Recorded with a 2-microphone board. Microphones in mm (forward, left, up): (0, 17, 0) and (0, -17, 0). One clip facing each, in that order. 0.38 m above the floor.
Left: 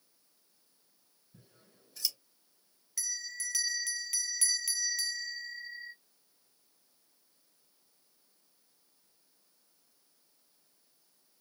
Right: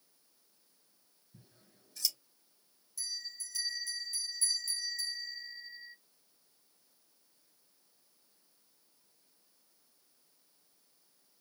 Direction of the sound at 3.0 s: 90° left.